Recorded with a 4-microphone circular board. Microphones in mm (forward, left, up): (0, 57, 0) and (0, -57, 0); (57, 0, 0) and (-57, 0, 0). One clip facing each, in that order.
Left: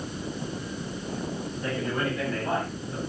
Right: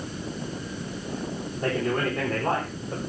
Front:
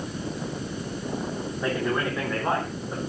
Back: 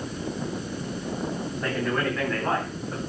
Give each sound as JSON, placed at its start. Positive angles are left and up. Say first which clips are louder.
{"t": 1.6, "sound": "a man speaking", "louder": "right 4 dB, front 1 dB", "azimuth_deg": -75, "distance_m": 4.0}